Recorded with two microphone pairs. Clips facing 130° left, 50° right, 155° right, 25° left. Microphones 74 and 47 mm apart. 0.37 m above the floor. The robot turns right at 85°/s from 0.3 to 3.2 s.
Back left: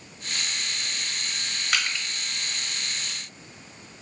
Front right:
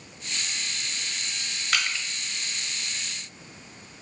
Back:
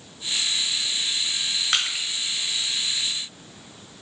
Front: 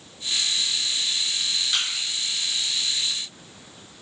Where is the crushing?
140° right, 0.8 m; by 2.1 s 115° right, 0.8 m.